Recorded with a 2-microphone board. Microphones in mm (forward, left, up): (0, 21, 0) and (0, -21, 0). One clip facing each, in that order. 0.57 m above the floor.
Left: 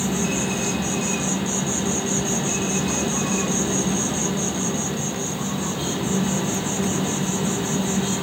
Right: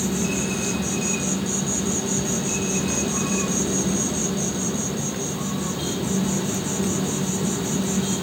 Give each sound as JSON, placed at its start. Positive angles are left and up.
{"t": 0.0, "sound": "an insect", "side_deg": 45, "distance_m": 2.5}